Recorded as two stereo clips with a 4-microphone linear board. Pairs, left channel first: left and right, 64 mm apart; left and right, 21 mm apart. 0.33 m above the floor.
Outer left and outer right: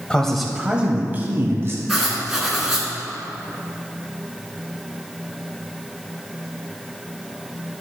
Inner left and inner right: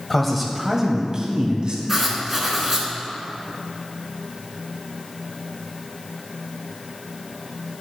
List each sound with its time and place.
0.1 s a man speaking: 15° left (ahead or behind), 1.3 m; by 1.8 s 40° right (ahead or behind), 2 m
1.9 s writing: 5° right (ahead or behind), 2 m